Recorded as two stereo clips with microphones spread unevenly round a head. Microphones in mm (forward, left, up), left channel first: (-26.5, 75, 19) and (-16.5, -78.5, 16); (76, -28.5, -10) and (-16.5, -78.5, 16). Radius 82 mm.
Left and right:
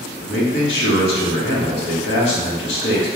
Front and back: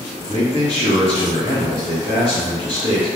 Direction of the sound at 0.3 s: 75° left.